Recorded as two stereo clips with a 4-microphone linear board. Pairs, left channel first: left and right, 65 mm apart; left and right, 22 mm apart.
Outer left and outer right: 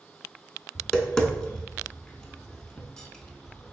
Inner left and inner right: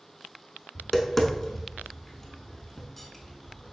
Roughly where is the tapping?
Centre.